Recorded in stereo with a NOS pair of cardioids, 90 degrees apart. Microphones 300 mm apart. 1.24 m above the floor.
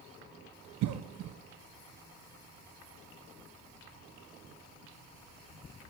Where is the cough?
70° right, 0.6 m.